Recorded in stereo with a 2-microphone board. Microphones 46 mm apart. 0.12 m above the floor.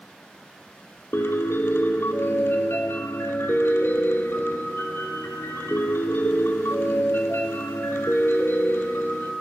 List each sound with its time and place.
1.1 s a piano: 65° left (ahead or behind), 0.6 m